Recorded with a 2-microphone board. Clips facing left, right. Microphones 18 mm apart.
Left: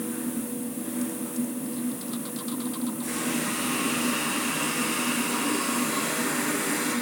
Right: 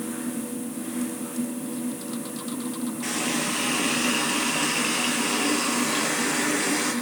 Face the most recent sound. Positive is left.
turn(degrees=-55)  # may be behind; listen again after turning